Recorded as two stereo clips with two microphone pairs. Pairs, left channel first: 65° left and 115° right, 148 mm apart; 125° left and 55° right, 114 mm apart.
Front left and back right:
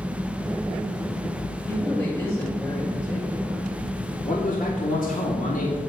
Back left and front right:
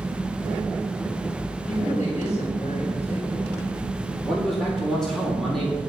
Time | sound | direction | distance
1.7 | a woman speaking | 145° left | 5.5 m
4.2 | a man speaking | 40° left | 3.5 m